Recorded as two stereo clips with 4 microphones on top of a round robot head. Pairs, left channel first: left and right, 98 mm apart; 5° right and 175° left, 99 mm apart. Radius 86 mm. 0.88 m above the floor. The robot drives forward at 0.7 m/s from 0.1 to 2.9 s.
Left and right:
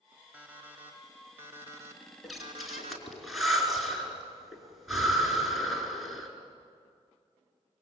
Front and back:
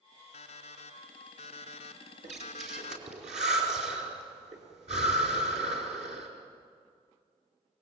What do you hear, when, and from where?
0.3 s an alarm clock: 10° right, 2 m; by 3.1 s 45° right, 0.6 m
2.2 s breathing: straight behind, 4.5 m